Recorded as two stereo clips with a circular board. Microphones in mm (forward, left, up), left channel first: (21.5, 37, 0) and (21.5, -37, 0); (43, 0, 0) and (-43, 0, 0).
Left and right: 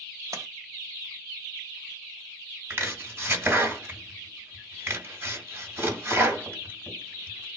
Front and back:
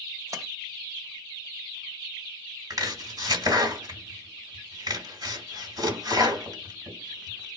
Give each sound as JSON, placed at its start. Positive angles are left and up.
{"t": 0.3, "sound": "a splash", "azimuth_deg": -130, "distance_m": 0.7}
{"t": 2.7, "sound": "chopping", "azimuth_deg": -145, "distance_m": 1.9}